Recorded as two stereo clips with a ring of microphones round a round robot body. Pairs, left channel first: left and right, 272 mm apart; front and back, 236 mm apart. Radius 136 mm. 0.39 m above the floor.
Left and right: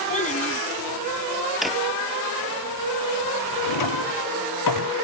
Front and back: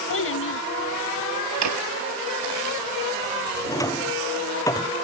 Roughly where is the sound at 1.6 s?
Behind.